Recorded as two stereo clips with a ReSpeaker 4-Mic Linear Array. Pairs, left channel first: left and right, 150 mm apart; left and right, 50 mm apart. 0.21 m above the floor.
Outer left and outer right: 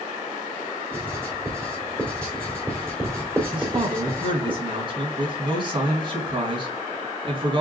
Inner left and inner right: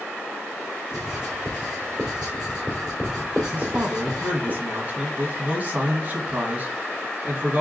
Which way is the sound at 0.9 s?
15° right (ahead or behind).